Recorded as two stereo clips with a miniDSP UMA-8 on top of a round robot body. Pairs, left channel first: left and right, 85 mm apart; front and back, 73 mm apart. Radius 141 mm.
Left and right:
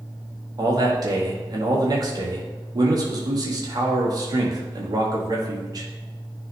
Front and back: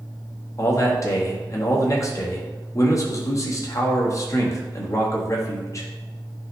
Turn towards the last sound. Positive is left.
turn(degrees=-50)